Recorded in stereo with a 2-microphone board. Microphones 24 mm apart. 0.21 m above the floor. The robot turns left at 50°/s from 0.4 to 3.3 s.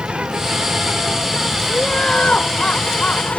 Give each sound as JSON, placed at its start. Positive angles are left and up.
{"t": 0.0, "sound": "an insect", "azimuth_deg": -120}
{"t": 1.7, "sound": "laughter", "azimuth_deg": 150}